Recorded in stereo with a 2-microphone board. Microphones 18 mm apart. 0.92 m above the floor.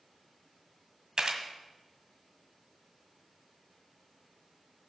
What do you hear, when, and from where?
1.2 s a camera shutter: 45° right (ahead or behind), 1.6 m